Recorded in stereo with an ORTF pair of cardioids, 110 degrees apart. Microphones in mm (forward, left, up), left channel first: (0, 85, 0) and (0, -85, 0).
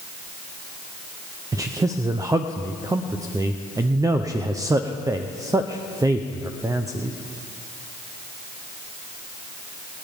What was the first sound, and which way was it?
A man speaking, 20° right.